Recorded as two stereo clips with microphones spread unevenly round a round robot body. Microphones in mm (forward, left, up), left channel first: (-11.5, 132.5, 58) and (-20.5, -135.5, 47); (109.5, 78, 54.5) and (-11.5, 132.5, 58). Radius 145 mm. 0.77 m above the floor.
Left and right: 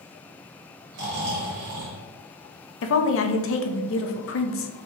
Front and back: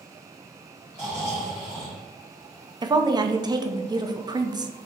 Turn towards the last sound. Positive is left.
turn(degrees=105)